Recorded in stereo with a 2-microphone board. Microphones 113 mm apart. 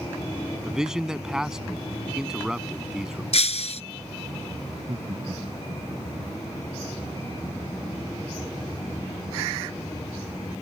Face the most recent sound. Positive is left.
turn(degrees=-55)  # may be behind; listen again after turning